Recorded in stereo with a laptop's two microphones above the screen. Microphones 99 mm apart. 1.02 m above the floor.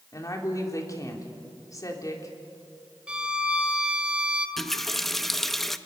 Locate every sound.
0.1 s a woman speaking: 35° left (ahead or behind), 3.5 m
3.1 s a violin: 10° right (ahead or behind), 1.4 m
4.6 s a running tap: 5° left (ahead or behind), 0.6 m